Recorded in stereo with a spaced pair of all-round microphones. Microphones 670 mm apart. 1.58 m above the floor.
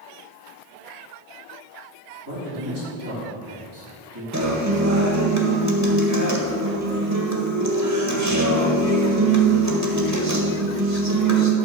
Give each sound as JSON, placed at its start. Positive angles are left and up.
{"t": 2.2, "sound": "a man speaking", "side_deg": -35, "distance_m": 4.0}
{"t": 4.3, "sound": "a guitar", "side_deg": -25, "distance_m": 1.6}